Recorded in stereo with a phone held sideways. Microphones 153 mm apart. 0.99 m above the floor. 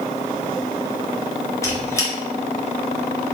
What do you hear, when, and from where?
1.6 s a squeak: 20° left (ahead or behind), 0.7 m